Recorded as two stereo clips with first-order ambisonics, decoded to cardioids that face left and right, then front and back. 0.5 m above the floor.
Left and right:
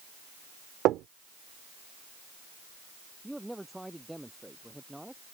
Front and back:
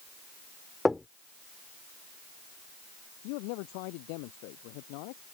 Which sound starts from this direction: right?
Knocking, at 0.8 s.